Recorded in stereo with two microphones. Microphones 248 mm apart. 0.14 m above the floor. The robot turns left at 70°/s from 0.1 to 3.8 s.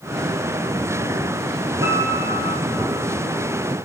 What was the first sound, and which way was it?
A piano, 120° left.